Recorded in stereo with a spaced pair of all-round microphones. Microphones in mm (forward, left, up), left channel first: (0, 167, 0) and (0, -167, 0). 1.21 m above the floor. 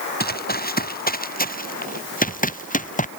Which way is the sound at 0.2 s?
30° left (ahead or behind).